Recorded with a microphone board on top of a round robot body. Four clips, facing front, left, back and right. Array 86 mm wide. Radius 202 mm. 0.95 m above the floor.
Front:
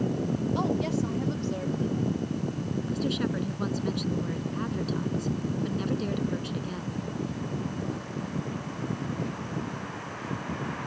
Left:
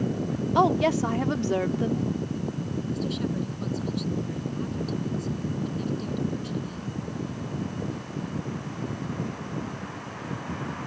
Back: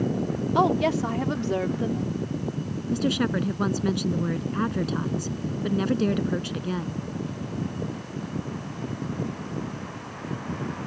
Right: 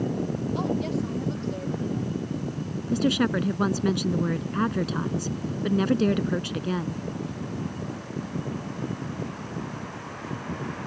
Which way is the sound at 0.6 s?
130° left.